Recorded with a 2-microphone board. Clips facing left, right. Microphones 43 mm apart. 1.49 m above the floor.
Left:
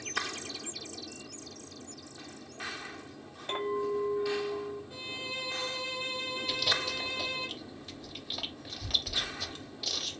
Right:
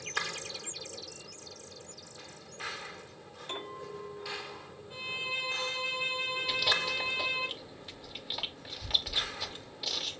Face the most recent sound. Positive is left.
turn(degrees=-15)  # may be behind; listen again after turning